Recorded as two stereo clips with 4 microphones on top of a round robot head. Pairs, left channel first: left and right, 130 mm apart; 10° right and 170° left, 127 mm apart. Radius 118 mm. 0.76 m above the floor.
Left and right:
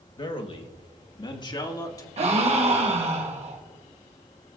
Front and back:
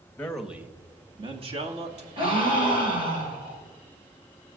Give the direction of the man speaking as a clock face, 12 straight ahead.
10 o'clock.